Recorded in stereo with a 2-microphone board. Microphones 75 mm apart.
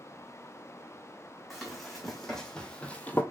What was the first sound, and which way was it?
Running footsteps, centre (ahead or behind).